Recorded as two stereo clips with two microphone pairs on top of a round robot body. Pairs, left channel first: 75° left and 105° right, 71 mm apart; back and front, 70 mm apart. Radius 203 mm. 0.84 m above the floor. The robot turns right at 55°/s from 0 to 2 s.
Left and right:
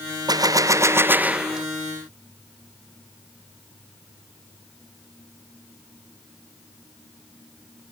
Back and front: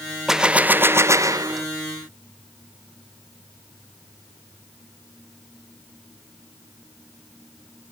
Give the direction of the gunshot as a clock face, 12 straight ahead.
3 o'clock.